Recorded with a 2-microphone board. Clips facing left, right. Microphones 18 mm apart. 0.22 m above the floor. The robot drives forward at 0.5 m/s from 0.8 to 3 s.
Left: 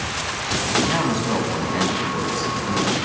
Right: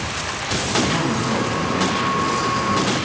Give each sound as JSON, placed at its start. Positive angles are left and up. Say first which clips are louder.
{"t": 0.8, "sound": "a man speaking", "louder": "right 1 dB", "side_deg": 20, "distance_m": 1.4}